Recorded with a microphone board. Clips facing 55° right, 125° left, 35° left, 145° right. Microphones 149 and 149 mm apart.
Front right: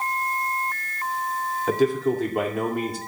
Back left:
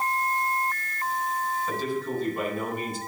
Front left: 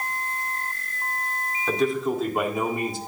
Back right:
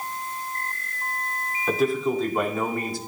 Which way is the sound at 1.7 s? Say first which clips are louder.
Front right 13 dB, back right 1 dB; 60° right.